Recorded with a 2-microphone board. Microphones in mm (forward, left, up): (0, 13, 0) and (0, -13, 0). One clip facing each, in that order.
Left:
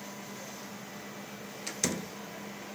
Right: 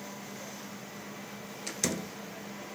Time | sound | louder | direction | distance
1.7 | a door slam | even | centre (ahead or behind) | 1.4 m